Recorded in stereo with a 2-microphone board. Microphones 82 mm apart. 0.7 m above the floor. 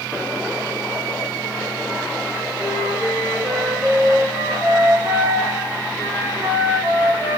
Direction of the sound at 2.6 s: 25° right (ahead or behind).